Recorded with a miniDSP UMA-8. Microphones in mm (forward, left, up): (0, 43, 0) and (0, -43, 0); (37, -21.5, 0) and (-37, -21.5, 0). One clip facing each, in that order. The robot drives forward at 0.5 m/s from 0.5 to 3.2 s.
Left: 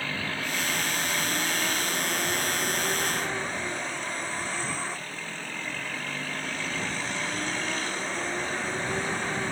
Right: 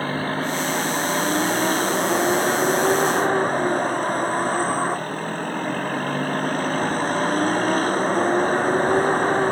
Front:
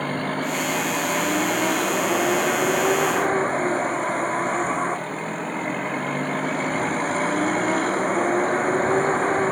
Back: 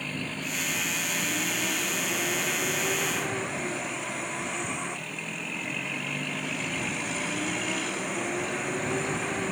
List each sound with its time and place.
0.0 s a vehicle: 40° right; by 9.5 s 45° right